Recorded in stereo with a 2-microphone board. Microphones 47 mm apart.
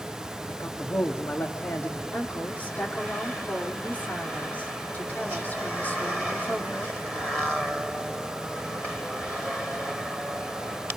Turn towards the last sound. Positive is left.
turn(degrees=40)  # may be behind; listen again after turning